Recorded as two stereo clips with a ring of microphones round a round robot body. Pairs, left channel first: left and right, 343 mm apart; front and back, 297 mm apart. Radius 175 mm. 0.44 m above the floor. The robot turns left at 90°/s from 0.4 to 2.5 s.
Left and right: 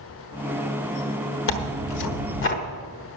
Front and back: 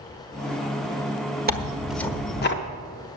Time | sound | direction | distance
1.5 | tearing paper | 130° left | 1.3 m